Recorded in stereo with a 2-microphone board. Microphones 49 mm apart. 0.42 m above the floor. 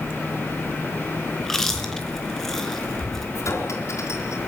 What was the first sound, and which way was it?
Chewing, 10° left (ahead or behind).